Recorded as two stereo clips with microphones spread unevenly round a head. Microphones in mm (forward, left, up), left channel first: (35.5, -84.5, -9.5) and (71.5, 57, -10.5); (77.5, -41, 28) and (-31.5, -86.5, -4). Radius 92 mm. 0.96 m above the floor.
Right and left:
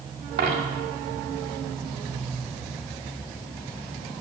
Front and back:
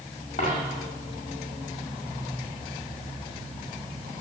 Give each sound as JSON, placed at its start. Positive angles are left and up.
{"t": 0.4, "sound": "a dropped coin", "azimuth_deg": 75, "distance_m": 2.0}